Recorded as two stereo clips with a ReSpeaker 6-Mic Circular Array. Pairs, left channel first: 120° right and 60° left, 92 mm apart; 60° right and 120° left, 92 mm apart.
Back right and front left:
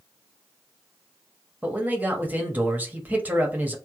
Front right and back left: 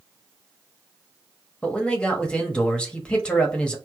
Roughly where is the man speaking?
Ahead.